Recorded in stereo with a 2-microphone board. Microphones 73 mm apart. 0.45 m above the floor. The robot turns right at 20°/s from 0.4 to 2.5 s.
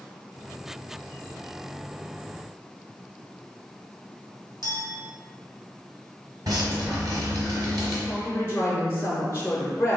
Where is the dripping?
60° right (ahead or behind), 1.2 m.